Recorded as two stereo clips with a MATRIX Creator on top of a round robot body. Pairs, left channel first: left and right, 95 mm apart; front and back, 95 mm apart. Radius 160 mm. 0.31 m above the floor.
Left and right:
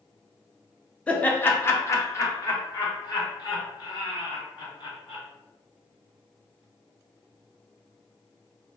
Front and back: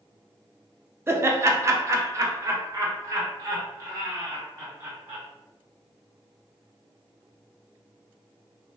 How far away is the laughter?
About 0.9 m.